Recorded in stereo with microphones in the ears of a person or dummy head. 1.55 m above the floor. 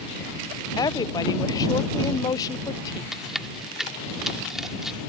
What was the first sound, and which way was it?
A woman speaking, 20° left (ahead or behind).